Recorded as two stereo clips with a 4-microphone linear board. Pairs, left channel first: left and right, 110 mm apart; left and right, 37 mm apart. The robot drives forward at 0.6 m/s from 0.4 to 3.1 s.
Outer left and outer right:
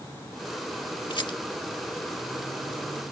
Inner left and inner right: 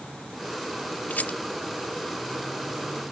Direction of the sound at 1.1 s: 45° left (ahead or behind).